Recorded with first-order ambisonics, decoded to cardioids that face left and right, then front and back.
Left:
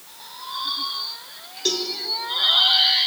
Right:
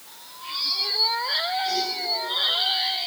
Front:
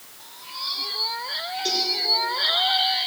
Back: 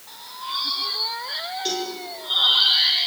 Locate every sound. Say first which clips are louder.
1.6 s a cowbell: left 1 dB, front 4 dB; 90° left, 5 m